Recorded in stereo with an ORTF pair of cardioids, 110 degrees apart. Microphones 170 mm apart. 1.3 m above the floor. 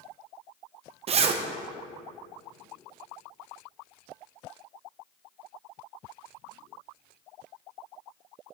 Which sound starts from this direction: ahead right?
A zipper, at 1.1 s.